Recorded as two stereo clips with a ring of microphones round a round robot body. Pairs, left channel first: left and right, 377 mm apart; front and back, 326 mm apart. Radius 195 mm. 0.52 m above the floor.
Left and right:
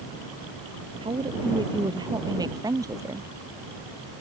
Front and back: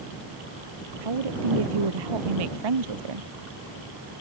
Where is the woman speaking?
170° right; by 3.3 s 175° right.